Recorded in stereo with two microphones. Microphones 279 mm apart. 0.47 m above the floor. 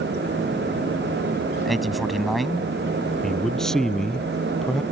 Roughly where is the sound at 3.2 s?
Centre.